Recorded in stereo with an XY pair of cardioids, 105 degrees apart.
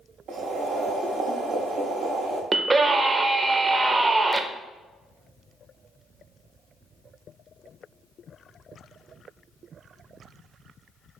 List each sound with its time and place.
0.3 s boiling: 65° right, 0.7 m
2.5 s a scream: 30° right, 0.6 m